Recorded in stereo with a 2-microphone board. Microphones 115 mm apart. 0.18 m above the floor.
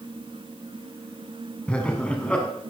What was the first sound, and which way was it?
Laughter, 10° left (ahead or behind).